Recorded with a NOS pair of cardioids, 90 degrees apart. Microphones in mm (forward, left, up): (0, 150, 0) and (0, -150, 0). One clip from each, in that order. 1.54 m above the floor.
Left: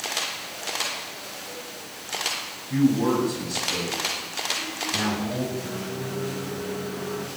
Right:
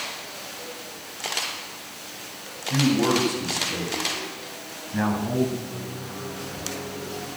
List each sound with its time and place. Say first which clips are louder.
2.7 s a man speaking: right 1 dB; 10° right, 9.5 m; by 5.5 s 35° right, 9 m
5.6 s a microwave: left 3 dB; 45° left, 2 m